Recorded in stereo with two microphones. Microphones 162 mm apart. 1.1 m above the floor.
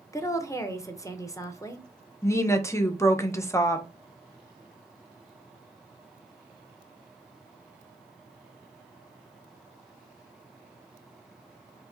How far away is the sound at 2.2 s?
About 0.6 m.